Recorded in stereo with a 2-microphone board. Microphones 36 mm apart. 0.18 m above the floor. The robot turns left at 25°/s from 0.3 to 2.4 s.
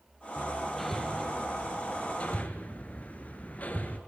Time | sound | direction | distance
0.4 | hammering | 5° right (ahead or behind) | 2 m